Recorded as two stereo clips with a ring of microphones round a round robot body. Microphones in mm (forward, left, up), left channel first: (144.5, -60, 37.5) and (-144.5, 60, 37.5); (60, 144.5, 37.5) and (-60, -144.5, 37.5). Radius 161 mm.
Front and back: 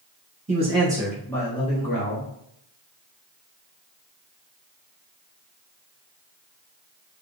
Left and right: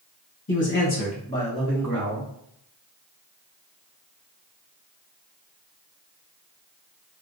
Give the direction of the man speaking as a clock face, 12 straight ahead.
9 o'clock.